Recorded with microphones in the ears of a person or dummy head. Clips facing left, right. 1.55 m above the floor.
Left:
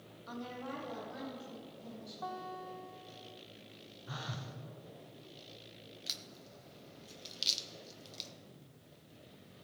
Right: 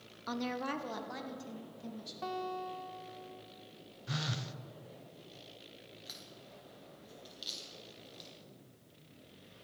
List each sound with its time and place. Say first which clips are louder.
0.3 s a woman speaking: right 6 dB; 65° right (ahead or behind), 0.7 m; by 2.1 s 90° right, 3 m
2.2 s a guitar: right 5 dB; 35° right (ahead or behind), 0.9 m
4.1 s a phone buzzing: right 5 dB; 30° right (ahead or behind), 0.5 m
6.1 s a crack: even; 35° left (ahead or behind), 0.8 m